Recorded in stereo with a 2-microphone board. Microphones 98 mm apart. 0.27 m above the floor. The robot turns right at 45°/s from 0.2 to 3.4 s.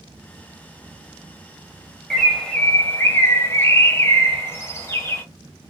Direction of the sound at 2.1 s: Centre (ahead or behind).